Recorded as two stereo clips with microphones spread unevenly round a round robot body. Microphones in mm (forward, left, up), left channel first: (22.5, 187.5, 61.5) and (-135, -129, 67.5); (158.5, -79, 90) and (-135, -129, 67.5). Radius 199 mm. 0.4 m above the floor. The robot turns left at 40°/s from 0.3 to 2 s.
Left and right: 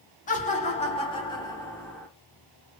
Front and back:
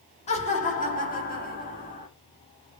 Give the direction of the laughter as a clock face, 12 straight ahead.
10 o'clock.